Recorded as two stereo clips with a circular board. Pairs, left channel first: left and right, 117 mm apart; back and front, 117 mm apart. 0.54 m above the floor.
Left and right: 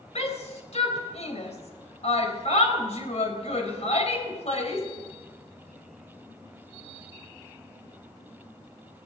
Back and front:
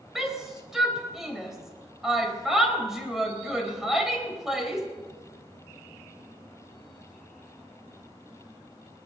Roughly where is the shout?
Left.